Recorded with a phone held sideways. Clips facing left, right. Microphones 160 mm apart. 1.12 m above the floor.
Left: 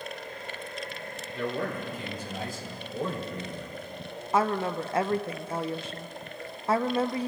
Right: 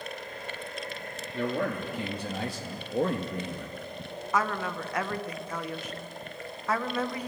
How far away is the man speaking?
About 2 m.